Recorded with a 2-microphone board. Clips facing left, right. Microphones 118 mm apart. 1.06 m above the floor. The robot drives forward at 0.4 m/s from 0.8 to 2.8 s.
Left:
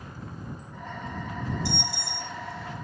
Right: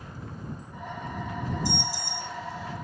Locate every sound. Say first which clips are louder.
1.6 s an alarm: right 1 dB; 70° left (ahead or behind), 5.5 m; by 2.8 s 65° left (ahead or behind), 5.5 m